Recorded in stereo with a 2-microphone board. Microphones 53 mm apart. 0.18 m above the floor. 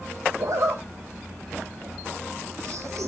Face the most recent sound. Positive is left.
turn(degrees=-70)  # may be behind; listen again after turning